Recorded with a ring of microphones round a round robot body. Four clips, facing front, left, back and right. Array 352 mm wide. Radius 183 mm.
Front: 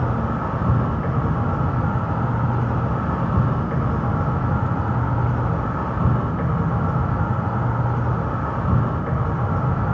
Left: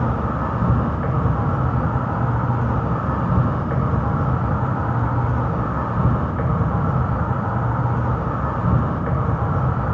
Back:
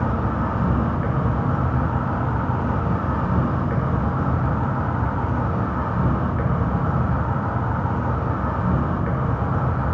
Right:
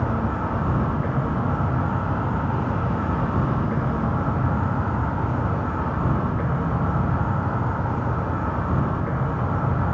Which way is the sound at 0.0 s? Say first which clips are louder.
Left 2 dB, even; 100° left.